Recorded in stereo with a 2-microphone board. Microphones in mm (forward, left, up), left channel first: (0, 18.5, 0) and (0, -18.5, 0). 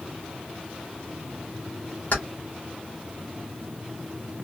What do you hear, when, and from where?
2.1 s keys jangling: 55° left (ahead or behind), 1.5 m